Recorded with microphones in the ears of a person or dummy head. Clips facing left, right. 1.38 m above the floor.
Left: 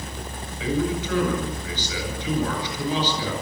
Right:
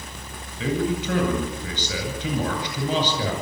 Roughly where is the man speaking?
Right.